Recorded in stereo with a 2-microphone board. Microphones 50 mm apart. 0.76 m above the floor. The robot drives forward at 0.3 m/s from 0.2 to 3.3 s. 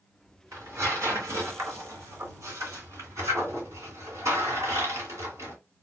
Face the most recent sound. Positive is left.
turn(degrees=-85)